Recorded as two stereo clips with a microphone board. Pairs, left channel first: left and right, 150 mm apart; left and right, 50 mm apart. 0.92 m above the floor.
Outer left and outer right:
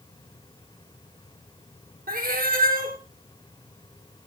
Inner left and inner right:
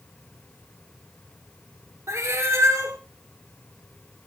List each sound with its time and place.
2.1 s a cat meowing: 75° right (ahead or behind), 1.2 m